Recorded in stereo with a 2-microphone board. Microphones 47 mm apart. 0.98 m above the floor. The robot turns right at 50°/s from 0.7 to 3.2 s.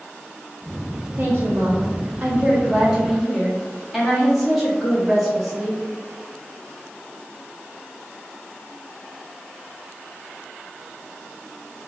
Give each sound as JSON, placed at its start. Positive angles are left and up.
{"t": 1.2, "sound": "a woman speaking", "azimuth_deg": -100, "distance_m": 1.5}